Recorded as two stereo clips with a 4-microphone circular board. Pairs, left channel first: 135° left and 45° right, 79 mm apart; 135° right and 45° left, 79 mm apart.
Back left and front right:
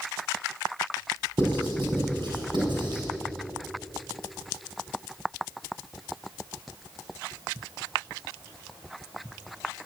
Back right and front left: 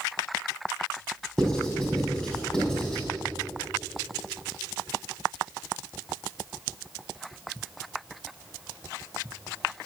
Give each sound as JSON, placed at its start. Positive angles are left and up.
{"t": 1.4, "sound": "writing", "azimuth_deg": -55, "distance_m": 5.5}